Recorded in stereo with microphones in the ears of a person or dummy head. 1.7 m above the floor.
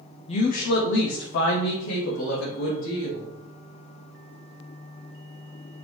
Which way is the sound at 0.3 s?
40° left (ahead or behind).